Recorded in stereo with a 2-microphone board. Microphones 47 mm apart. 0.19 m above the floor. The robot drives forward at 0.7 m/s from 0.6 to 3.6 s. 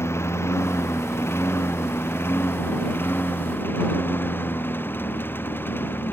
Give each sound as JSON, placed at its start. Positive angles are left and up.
{"t": 0.0, "sound": "a lawn mower", "side_deg": 65}